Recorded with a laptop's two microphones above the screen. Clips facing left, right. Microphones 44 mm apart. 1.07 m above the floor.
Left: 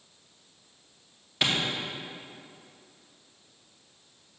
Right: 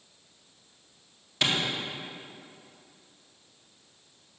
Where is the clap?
10° left (ahead or behind), 2 m.